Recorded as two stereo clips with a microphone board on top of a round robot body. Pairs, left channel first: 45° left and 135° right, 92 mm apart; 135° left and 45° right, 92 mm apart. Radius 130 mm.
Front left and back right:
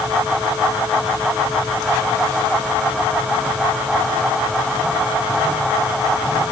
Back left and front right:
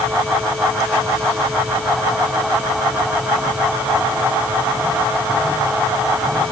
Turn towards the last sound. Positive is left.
No sound to turn to.